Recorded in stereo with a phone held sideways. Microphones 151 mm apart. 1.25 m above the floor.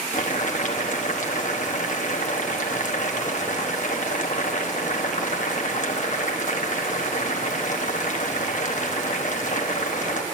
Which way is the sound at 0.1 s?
55° left (ahead or behind).